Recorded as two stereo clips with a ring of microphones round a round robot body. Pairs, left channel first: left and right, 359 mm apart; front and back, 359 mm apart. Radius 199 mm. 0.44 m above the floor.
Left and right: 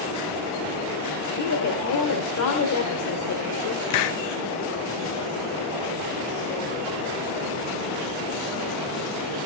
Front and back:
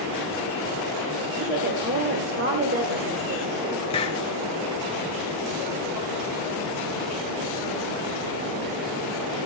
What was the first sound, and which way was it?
A woman speaking, 120° left.